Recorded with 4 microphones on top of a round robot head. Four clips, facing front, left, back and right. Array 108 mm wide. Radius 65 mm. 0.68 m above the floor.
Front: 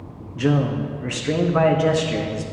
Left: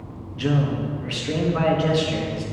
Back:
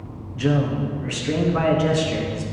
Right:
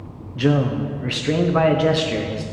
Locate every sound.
0.3 s a man speaking: 55° right, 0.7 m